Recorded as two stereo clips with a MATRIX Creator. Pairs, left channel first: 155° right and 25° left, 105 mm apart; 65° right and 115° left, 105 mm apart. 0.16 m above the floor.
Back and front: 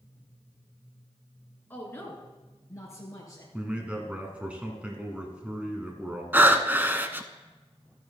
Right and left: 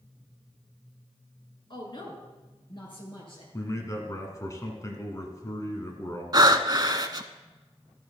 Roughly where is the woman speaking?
Right.